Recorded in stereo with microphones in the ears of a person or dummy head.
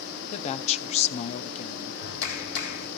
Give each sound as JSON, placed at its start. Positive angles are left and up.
{"t": 0.3, "sound": "a woman speaking", "side_deg": 40, "distance_m": 0.7}
{"t": 2.0, "sound": "a clap", "side_deg": 75, "distance_m": 3.0}